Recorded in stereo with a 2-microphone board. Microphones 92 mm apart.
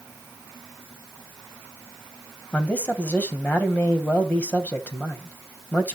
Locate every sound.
2.5 s a man speaking: 15° left (ahead or behind), 2.5 m